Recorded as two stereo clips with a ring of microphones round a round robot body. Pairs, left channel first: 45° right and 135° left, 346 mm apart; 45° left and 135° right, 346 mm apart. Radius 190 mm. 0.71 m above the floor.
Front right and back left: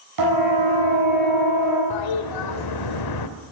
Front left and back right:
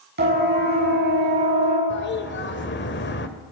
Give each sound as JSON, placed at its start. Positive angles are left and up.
{"t": 0.2, "sound": "a siren", "azimuth_deg": 160, "distance_m": 8.5}
{"t": 1.9, "sound": "a toilet flushing", "azimuth_deg": -15, "distance_m": 1.3}